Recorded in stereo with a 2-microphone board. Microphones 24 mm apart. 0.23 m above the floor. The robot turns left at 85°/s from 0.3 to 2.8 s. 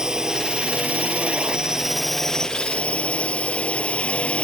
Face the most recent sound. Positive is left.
turn(degrees=120)